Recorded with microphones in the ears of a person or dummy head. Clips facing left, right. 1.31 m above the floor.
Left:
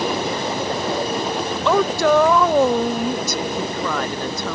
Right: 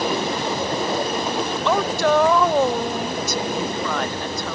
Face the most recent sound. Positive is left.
turn(degrees=75)  # may be behind; listen again after turning